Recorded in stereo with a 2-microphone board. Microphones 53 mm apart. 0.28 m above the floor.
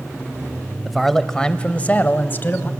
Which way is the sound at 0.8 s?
5° right (ahead or behind).